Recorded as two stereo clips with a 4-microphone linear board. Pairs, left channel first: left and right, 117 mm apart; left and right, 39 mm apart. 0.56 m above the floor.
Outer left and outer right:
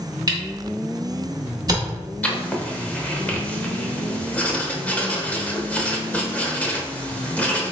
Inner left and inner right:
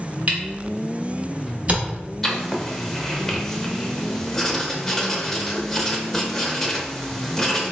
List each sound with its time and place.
0.3 s a camera shutter: 35° right (ahead or behind), 0.9 m
2.2 s writing: 15° left (ahead or behind), 0.6 m